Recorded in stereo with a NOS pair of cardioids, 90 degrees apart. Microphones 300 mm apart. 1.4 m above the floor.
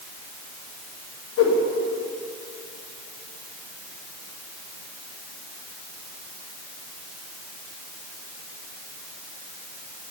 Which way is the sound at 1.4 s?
50° left.